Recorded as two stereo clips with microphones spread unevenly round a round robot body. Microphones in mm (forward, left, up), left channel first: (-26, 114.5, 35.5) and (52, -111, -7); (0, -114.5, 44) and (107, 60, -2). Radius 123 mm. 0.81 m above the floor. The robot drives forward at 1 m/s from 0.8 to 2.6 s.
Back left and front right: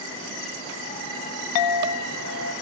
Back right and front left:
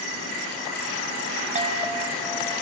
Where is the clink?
115° left, 0.7 m; by 2.5 s 155° left, 1.4 m.